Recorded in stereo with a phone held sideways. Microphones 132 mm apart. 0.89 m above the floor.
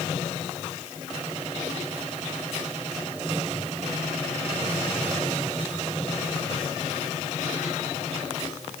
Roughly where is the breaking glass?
I don't hear breaking glass.